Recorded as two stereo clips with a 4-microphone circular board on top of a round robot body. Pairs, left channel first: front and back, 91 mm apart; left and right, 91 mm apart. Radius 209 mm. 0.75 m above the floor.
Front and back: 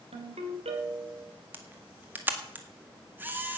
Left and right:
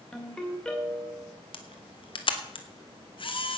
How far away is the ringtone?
About 2.5 m.